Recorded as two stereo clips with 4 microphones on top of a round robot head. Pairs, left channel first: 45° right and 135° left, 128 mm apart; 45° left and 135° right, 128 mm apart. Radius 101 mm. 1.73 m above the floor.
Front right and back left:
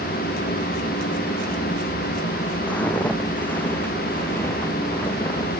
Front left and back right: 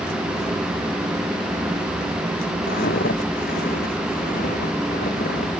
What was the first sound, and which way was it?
Footsteps, 35° left.